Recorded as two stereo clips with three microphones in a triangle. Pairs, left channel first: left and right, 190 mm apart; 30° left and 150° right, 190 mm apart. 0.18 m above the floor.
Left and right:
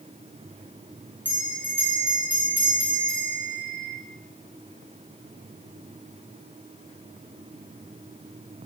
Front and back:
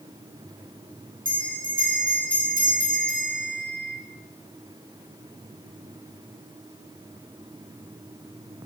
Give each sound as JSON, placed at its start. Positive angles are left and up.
{"t": 1.2, "sound": "a bell", "azimuth_deg": 170, "distance_m": 1.6}